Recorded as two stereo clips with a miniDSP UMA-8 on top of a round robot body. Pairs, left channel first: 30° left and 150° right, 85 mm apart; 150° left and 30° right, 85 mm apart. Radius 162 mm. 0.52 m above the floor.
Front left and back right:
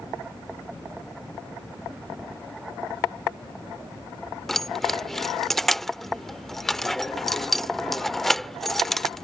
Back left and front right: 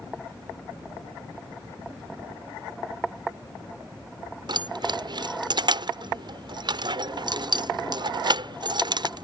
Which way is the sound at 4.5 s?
55° right.